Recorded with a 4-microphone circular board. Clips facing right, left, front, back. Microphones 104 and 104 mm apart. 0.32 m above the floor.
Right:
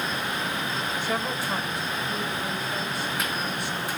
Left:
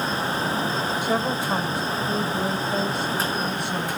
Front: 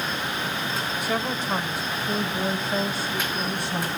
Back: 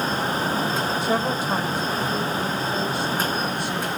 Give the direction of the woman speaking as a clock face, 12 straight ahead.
7 o'clock.